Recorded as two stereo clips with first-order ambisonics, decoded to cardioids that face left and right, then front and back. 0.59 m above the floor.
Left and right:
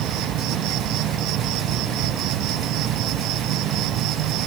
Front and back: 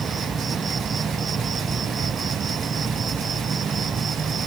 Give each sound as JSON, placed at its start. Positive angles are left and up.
{"t": 0.0, "sound": "an insect", "azimuth_deg": -110}